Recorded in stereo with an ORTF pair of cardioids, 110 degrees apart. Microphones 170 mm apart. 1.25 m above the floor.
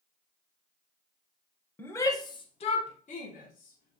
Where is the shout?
10° left, 0.9 m; by 4.0 s 65° left, 1.5 m.